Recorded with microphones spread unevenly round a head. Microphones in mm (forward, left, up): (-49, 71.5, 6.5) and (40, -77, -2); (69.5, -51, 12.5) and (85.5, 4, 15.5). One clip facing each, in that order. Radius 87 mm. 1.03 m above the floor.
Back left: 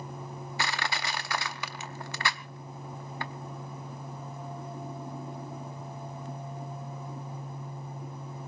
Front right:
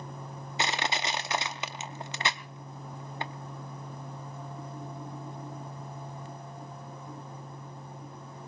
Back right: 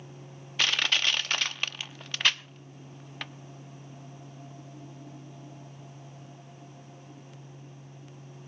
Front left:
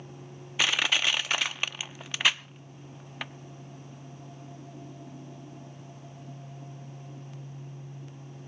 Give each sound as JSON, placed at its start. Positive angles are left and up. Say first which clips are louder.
{"t": 0.6, "sound": "crushing", "louder": "front right 3 dB, front left 1 dB", "azimuth_deg": 5, "distance_m": 0.5}